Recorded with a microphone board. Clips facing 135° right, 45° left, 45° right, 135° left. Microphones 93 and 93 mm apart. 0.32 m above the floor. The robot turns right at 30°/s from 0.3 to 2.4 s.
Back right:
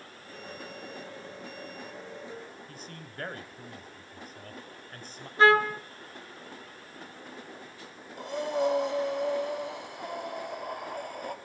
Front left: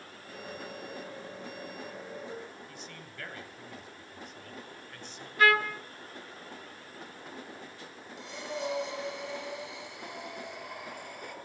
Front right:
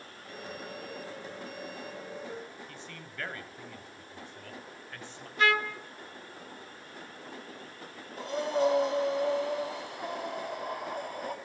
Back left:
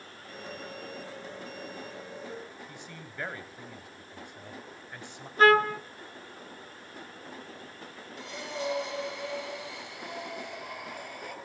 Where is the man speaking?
160° right, 2 m.